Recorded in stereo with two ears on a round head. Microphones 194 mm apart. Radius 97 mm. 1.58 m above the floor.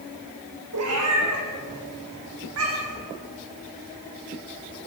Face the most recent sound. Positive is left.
turn(degrees=-65)  # may be behind; listen again after turning